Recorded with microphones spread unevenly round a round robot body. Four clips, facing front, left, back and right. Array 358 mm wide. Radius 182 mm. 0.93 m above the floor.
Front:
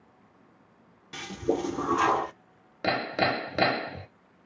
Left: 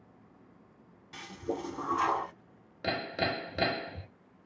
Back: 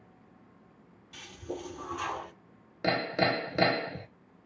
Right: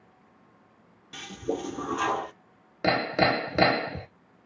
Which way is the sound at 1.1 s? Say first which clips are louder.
Right 5 dB, front 11 dB; 25° right.